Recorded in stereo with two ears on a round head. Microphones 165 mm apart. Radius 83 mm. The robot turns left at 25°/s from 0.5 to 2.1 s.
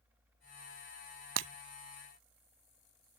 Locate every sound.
1.4 s breaking glass: 75° right (ahead or behind); by 1.5 s 70° right (ahead or behind)